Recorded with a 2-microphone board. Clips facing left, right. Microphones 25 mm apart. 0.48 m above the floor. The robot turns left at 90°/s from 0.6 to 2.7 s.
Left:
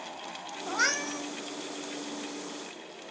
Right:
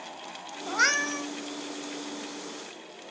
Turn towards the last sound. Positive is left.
turn(degrees=175)